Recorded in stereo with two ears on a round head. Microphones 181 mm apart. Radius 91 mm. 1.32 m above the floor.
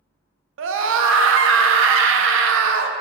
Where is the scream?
70° right (ahead or behind), 0.6 m.